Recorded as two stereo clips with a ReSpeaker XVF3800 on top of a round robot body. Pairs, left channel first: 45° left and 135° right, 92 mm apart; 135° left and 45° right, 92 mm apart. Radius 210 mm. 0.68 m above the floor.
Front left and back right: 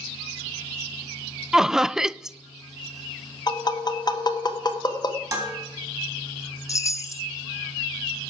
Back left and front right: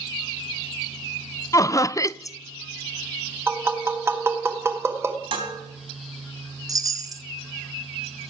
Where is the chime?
5° right, 1.1 m.